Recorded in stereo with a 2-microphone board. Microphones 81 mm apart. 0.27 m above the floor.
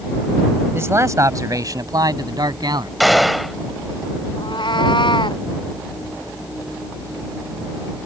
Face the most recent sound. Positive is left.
turn(degrees=70)  # may be behind; listen again after turning